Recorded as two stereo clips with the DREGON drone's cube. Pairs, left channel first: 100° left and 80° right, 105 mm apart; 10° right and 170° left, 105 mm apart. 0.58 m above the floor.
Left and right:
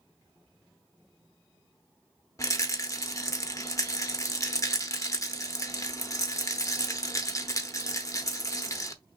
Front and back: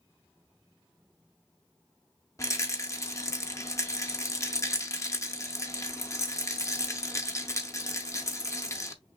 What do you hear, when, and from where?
2.4 s a rattle: 45° left, 0.8 m